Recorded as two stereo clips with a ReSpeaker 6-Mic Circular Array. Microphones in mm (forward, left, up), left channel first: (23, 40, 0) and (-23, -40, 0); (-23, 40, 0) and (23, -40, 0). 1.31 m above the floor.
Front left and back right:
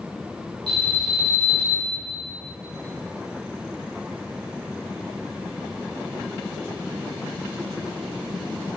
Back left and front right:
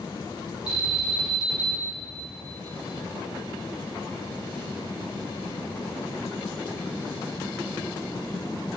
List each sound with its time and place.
0.7 s an alarm: 80° left, 2 m